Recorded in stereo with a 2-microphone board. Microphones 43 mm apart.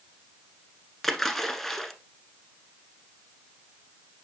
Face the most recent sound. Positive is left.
turn(degrees=10)  # may be behind; listen again after turning